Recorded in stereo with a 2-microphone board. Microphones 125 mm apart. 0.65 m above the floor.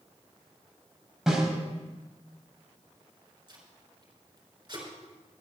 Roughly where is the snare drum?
Centre.